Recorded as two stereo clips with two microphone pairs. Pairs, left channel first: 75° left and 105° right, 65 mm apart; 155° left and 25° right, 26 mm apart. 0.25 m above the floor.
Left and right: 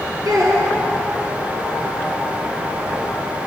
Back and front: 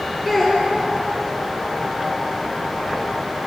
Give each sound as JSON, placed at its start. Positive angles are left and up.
{"t": 0.2, "sound": "a child speaking", "azimuth_deg": -105, "distance_m": 4.0}